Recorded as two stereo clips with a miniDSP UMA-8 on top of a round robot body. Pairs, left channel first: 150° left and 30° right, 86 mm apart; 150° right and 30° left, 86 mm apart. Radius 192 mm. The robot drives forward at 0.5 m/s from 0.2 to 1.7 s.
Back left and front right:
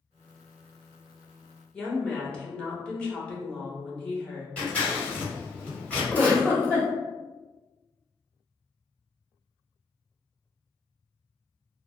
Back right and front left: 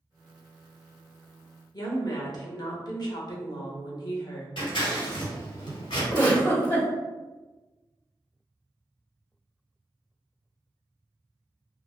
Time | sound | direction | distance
1.7 | a woman speaking | 135° right | 1.2 m
4.6 | scissors | 135° right | 1.5 m
6.1 | a giggle | 140° right | 1.7 m